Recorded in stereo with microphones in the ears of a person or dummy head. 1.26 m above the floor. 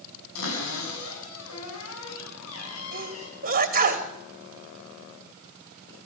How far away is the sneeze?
About 2.5 m.